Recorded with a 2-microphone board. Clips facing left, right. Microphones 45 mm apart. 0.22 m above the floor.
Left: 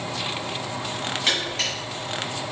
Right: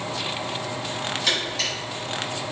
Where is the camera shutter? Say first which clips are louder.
Left 1 dB; 40° left (ahead or behind), 1.5 m.